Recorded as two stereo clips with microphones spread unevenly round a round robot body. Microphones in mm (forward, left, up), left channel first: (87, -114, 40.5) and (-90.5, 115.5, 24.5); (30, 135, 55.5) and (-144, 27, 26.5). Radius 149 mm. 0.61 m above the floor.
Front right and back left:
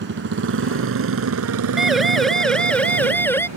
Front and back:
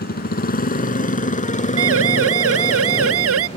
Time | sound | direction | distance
0.0 | a motorcycle | 75° left | ?
1.8 | a siren | 145° right | ?